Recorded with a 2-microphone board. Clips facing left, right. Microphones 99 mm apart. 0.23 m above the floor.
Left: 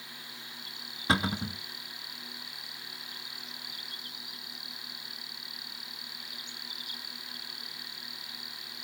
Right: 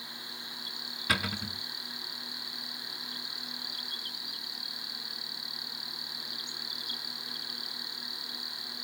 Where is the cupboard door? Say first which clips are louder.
Left 4 dB; 25° left (ahead or behind), 0.6 m.